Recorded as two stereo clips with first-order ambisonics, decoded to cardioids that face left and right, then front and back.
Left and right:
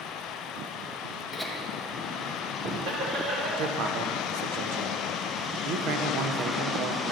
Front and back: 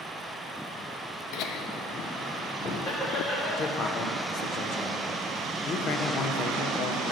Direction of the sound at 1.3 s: 5° left.